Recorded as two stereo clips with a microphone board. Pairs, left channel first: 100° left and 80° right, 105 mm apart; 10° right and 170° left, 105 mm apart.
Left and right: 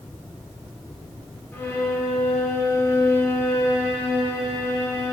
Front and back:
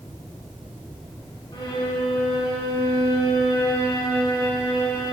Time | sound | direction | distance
1.5 | a violin | 30° left | 1.3 m